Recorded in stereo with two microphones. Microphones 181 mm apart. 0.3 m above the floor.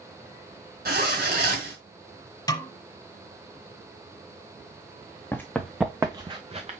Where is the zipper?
55° right (ahead or behind), 2.5 m.